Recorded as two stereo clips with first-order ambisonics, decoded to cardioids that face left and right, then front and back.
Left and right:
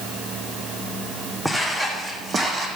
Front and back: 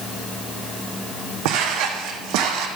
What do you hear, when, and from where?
1.4 s footsteps: 175° right, 2.5 m; by 2.7 s 150° right, 2.5 m